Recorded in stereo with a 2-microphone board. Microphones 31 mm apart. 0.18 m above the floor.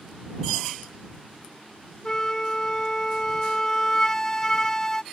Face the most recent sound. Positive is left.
turn(degrees=20)  # may be behind; listen again after turning